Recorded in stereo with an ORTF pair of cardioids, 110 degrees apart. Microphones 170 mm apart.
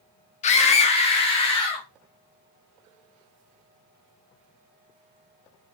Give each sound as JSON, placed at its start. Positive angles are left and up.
{"t": 0.4, "sound": "a scream", "azimuth_deg": 45, "distance_m": 0.9}